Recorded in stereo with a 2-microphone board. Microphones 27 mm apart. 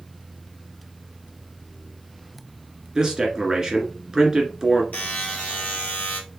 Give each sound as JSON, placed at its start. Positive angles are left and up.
{"t": 3.0, "sound": "a man speaking", "side_deg": -25, "distance_m": 1.6}
{"t": 4.9, "sound": "a buzzer", "side_deg": 50, "distance_m": 2.5}